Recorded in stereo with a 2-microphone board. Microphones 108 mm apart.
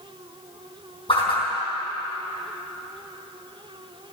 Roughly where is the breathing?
I don't hear breathing.